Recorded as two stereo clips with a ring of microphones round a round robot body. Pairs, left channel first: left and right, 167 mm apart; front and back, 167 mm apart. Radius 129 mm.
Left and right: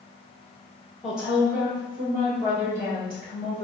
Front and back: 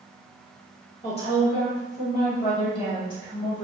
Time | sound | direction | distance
1.0 | a woman speaking | 5° right | 1.5 m